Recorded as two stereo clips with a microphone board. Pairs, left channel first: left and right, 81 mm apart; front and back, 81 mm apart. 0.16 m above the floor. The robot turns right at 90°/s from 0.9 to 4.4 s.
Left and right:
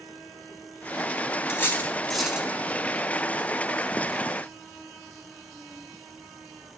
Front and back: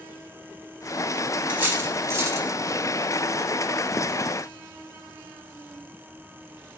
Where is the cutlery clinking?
120° left, 1.0 m; by 2.5 s 150° right, 1.0 m.